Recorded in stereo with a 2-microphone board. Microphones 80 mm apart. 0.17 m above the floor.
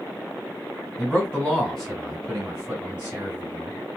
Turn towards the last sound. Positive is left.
turn(degrees=-20)  # may be behind; listen again after turning